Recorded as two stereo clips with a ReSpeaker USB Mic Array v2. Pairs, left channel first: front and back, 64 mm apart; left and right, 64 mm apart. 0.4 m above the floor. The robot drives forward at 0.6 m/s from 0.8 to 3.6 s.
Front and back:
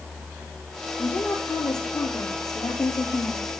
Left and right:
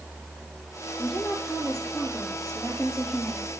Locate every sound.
1.0 s a woman speaking: 5° left, 9 m